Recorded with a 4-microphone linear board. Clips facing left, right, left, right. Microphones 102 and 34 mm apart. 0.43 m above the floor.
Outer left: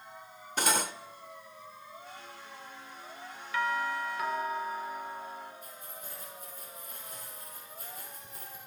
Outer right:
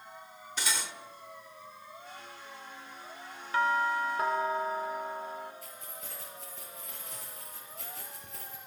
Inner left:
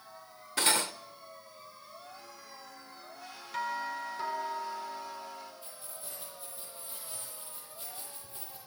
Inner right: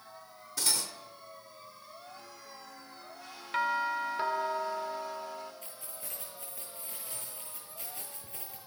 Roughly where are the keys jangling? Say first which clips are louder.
Even, inner right 1 dB; right.